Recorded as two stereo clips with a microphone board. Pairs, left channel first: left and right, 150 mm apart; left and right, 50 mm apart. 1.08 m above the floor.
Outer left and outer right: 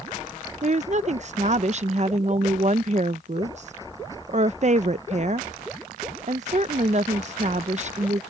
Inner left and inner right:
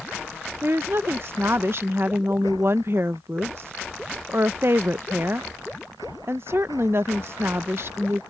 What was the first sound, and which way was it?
A woman speaking, 50° right (ahead or behind).